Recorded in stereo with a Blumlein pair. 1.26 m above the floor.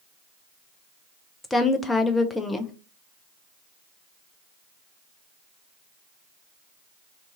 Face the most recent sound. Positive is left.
turn(degrees=10)